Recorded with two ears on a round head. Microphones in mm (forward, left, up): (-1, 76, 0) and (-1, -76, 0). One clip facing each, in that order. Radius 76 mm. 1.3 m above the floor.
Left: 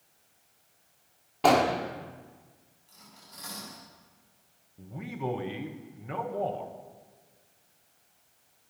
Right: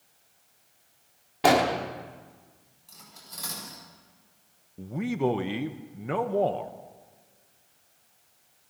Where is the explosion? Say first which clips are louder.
Right 1 dB; 10° right (ahead or behind), 1.4 m.